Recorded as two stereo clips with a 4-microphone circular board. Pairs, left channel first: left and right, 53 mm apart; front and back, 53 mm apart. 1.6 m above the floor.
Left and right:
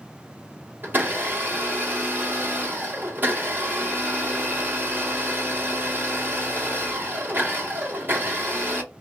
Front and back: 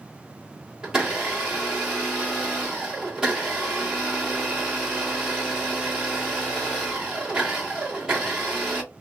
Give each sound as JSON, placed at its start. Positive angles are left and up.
{"t": 0.8, "sound": "a blender", "azimuth_deg": -115, "distance_m": 1.3}